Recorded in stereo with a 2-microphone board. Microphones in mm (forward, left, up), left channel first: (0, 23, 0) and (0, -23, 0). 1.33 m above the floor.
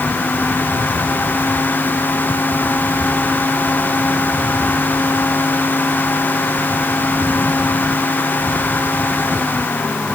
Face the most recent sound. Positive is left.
No sound to turn to.